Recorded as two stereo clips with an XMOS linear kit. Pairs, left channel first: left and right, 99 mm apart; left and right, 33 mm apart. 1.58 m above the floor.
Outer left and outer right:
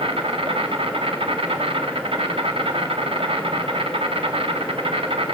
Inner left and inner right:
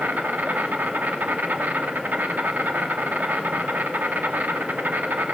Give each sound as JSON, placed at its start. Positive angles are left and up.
{"t": 0.0, "sound": "an insect", "side_deg": -70, "distance_m": 2.5}